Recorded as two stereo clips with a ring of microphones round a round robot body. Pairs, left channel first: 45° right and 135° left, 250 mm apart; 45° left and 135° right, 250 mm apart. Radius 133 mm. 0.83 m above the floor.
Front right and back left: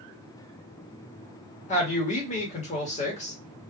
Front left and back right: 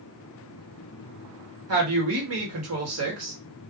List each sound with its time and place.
1.7 s a woman speaking: 105° right, 1.4 m